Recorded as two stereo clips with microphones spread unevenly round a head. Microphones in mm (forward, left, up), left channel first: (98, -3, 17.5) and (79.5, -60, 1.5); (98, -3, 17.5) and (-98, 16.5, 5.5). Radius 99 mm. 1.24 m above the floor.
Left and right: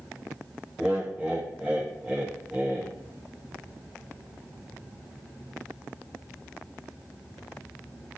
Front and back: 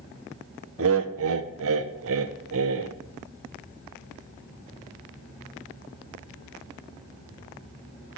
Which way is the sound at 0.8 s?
Straight behind.